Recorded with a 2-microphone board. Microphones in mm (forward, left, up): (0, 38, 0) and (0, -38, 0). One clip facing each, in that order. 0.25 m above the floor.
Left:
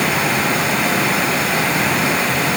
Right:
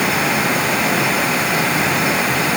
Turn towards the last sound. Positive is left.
No sound to turn to.